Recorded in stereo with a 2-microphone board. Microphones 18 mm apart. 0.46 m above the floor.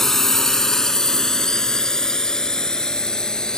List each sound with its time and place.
0.0 s a drone: 10° left (ahead or behind); by 3.6 s 35° left (ahead or behind)